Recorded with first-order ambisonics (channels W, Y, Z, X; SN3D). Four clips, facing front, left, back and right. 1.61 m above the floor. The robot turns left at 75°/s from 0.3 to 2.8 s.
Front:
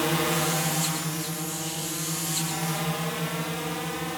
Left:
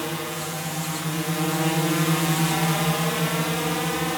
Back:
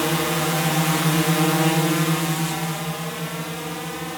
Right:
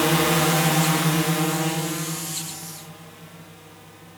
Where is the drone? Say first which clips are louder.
Right 10 dB, back 3 dB; 115° right; by 4.2 s 95° left.